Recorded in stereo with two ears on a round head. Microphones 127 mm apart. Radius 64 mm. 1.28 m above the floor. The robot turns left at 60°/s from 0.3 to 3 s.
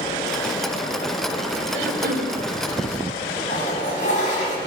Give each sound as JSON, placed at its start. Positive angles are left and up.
{"t": 1.7, "sound": "throat clearing", "azimuth_deg": -90, "distance_m": 5.5}
{"t": 3.5, "sound": "a toilet flushing", "side_deg": 60, "distance_m": 8.5}